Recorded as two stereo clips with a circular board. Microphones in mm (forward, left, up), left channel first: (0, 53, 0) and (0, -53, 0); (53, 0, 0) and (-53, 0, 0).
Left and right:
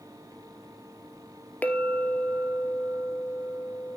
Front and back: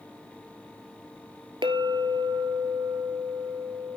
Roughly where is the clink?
Behind.